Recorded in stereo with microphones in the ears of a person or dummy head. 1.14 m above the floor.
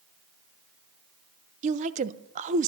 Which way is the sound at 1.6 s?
40° right (ahead or behind).